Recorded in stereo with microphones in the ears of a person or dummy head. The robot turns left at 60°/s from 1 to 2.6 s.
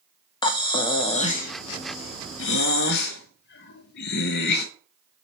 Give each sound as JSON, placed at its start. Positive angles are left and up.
{"t": 0.4, "sound": "breathing", "azimuth_deg": 160, "distance_m": 0.7}